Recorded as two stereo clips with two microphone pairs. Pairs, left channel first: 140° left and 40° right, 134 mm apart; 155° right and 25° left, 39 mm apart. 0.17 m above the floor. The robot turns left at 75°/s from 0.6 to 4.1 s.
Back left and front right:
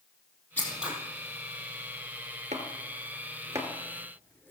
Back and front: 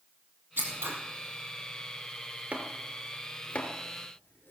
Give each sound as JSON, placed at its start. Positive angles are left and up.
{"t": 0.6, "sound": "scissors", "azimuth_deg": 60, "distance_m": 4.0}
{"t": 2.5, "sound": "chopping", "azimuth_deg": -25, "distance_m": 3.0}